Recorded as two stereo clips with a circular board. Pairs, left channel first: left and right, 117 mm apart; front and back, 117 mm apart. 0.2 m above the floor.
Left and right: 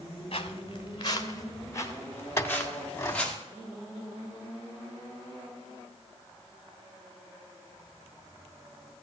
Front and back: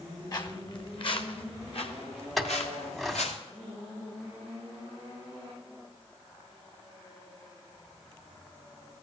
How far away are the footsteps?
About 1.6 m.